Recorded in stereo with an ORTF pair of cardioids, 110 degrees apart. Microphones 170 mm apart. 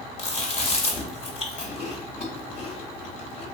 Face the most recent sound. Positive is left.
turn(degrees=35)